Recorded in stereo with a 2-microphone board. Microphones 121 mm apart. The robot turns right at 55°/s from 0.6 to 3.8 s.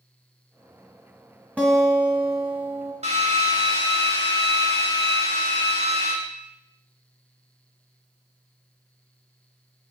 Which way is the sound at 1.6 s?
165° right.